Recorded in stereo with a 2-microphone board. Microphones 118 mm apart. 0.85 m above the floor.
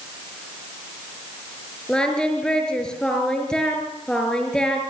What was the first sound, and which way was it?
Singing, 5° left (ahead or behind).